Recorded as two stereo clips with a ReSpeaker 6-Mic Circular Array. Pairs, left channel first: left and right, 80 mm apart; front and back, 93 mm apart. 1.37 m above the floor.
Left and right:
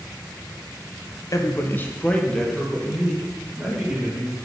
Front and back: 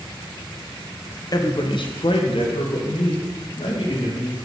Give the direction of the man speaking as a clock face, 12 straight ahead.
10 o'clock.